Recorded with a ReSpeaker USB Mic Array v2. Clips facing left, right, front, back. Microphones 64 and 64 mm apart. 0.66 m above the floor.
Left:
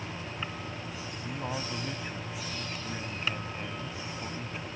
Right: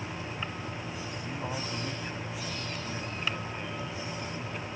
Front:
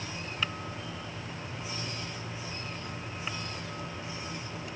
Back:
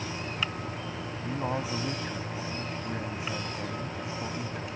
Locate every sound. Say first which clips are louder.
1.2 s a man speaking: left 2 dB, back 9 dB; 175° left